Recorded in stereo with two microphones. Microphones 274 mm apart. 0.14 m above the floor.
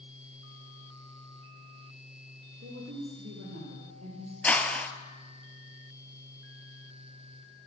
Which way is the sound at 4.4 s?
5° left (ahead or behind).